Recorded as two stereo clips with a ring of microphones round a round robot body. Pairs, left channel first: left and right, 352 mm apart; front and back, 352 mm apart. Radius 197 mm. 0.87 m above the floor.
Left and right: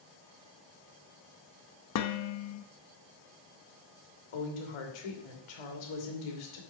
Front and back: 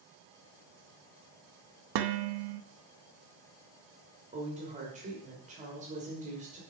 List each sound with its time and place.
1.9 s dishes clattering: 140° left, 0.6 m
4.3 s a woman speaking: 105° left, 2.5 m